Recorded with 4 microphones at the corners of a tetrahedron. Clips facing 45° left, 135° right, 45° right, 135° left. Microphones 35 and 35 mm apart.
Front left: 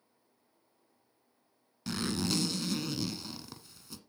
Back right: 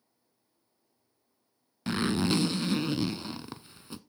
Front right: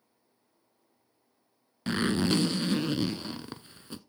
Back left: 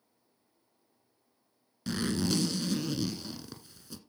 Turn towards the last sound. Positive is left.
turn(degrees=-90)